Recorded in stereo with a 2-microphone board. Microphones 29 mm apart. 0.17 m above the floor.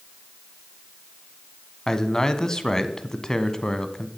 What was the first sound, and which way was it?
A man speaking, 20° left (ahead or behind).